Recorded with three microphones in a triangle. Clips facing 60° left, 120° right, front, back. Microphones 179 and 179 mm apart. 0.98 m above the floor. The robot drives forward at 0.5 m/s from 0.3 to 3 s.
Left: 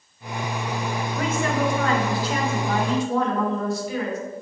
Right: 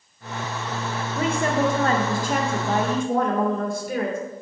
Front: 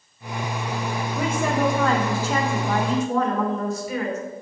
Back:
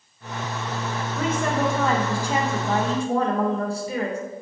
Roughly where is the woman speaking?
Right.